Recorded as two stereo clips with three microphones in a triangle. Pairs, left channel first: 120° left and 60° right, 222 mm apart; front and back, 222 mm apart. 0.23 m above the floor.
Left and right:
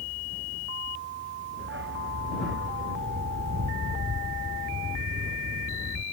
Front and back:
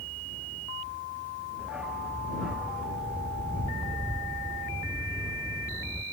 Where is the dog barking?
95° right.